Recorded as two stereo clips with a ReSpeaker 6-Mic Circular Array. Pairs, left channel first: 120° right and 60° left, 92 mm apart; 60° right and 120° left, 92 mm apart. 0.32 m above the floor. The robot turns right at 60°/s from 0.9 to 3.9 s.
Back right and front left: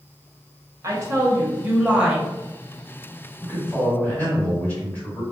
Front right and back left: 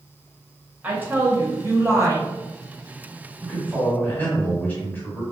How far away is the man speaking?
About 1.4 m.